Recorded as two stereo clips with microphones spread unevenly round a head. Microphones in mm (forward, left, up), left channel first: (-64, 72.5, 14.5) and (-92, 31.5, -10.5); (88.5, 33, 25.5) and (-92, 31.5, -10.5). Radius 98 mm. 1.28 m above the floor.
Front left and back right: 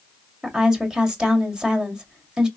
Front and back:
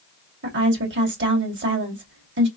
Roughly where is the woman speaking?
Behind left.